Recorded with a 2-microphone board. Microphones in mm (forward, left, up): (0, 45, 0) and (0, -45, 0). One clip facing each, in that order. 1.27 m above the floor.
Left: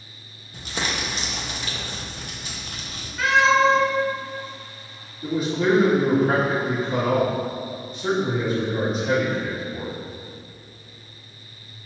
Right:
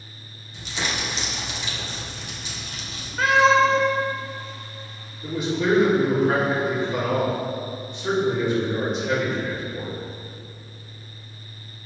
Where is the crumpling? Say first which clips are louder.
Left 1 dB; 50° left (ahead or behind), 1.4 m.